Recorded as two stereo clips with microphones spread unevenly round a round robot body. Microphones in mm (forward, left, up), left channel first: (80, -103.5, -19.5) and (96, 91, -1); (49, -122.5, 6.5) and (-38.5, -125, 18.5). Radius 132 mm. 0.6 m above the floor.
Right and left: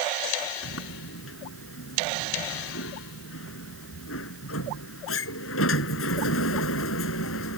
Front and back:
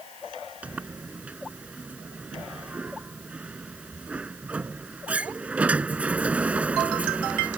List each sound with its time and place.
0.6 s a sliding door: 105° right